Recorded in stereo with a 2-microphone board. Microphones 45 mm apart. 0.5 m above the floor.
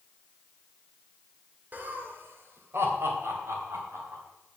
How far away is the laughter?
About 1.5 m.